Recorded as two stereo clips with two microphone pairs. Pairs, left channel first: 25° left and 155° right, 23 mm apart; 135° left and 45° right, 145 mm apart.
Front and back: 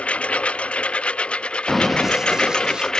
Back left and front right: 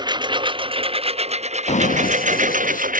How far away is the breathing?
No breathing in this recording.